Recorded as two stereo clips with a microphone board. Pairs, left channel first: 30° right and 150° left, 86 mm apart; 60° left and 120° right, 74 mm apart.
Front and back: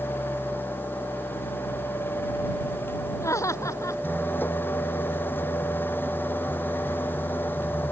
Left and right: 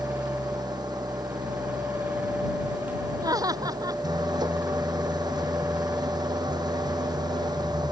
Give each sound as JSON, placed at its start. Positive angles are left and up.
{"t": 0.0, "sound": "an engine running", "azimuth_deg": -100}
{"t": 3.2, "sound": "laughter", "azimuth_deg": -85}